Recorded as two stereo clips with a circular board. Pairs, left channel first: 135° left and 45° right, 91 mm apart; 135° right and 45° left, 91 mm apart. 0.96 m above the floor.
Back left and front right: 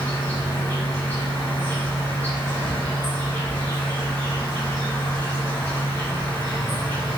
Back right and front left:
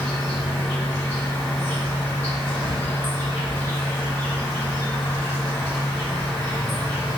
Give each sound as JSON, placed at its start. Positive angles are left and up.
{"t": 0.0, "sound": "an insect", "azimuth_deg": 170, "distance_m": 1.4}